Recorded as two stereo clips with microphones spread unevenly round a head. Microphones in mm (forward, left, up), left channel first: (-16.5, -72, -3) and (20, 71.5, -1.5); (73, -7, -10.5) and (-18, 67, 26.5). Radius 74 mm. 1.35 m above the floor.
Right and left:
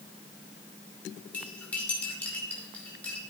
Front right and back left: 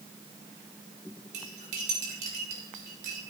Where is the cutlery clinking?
175° left, 2.5 m.